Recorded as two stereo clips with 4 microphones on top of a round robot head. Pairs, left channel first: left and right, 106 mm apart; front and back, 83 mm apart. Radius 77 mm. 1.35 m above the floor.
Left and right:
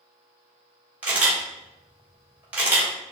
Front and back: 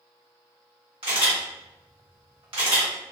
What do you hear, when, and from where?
1.0 s a camera shutter: 160° right, 1.2 m